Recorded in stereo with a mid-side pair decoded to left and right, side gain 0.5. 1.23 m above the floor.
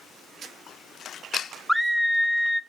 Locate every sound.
1.7 s a scream: straight ahead, 0.8 m